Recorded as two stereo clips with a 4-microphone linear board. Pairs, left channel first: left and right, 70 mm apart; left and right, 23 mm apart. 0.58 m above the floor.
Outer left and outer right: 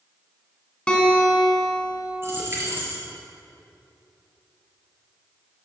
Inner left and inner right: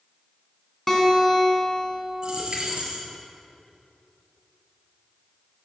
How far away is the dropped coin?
About 4 m.